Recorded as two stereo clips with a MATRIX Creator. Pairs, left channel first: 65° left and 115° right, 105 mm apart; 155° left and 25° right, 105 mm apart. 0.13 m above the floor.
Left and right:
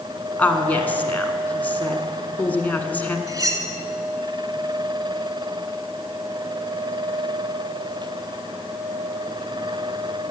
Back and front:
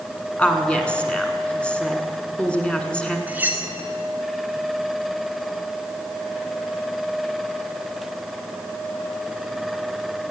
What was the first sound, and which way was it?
A woman speaking, 100° left.